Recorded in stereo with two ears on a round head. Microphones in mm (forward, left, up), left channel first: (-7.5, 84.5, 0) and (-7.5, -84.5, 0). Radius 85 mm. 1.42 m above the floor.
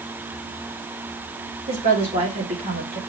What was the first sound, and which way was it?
A woman speaking, 30° right (ahead or behind).